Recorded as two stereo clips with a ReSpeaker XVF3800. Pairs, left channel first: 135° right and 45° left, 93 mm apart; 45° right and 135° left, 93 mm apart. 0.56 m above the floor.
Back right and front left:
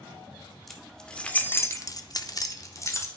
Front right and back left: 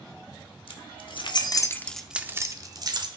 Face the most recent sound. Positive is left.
turn(degrees=170)